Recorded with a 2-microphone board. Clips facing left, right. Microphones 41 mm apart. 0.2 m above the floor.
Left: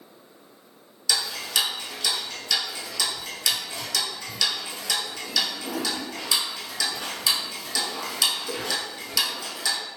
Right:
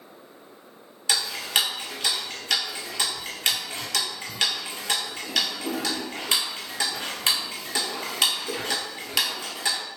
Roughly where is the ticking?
Right.